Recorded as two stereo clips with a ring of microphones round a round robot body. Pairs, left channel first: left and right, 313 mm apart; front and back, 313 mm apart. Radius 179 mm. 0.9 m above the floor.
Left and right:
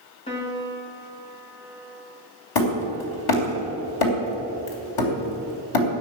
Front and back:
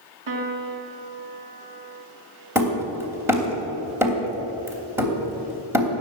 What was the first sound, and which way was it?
A piano, 165° left.